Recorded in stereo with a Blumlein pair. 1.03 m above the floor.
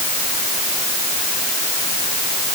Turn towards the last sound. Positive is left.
No sound to turn to.